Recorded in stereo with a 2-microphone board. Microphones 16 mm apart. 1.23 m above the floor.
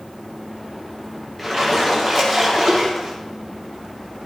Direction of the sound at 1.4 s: 5° left (ahead or behind).